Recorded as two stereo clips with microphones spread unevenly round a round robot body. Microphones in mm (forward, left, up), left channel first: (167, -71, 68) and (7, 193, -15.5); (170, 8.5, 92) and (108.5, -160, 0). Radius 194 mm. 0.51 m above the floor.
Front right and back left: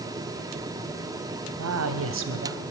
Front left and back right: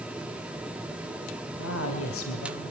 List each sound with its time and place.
1.6 s a woman speaking: 95° left, 3 m; by 2.7 s 65° left, 3 m